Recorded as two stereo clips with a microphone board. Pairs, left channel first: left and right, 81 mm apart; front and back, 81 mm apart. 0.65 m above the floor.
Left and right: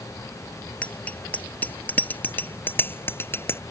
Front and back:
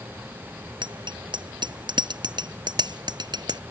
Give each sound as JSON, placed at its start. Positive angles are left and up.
{"t": 0.8, "sound": "a bicycle bell", "azimuth_deg": 165}